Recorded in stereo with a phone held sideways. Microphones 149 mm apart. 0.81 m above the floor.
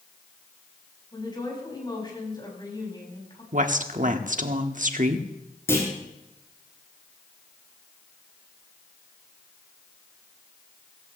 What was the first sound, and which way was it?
A woman speaking, 30° left (ahead or behind).